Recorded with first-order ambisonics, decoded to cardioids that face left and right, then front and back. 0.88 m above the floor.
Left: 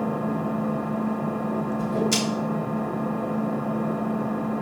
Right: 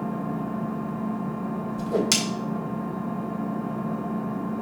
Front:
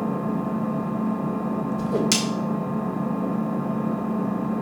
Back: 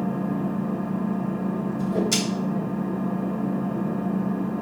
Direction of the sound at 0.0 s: 70° left.